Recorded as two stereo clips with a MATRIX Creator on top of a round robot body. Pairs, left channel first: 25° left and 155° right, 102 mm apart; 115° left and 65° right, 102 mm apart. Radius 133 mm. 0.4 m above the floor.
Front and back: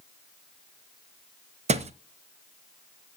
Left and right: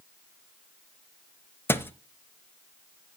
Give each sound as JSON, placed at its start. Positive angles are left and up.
{"t": 1.7, "sound": "a thud", "azimuth_deg": -175, "distance_m": 0.7}